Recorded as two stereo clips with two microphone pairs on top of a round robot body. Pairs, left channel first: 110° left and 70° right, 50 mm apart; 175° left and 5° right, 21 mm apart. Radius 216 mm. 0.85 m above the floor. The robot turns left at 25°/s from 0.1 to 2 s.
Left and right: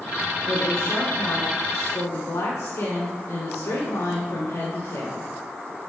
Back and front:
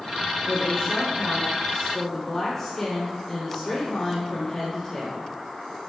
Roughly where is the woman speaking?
Behind left.